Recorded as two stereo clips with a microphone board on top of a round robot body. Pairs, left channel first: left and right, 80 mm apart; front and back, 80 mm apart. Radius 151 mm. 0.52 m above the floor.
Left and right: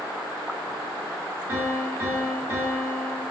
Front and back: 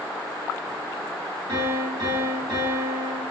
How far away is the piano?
About 1.4 m.